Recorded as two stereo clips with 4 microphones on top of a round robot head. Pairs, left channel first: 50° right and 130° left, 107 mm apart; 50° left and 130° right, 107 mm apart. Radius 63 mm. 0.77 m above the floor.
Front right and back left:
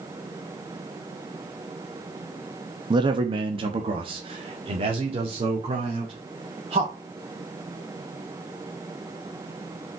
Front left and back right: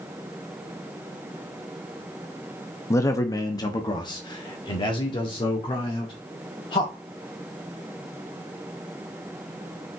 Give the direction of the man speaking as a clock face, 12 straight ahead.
9 o'clock.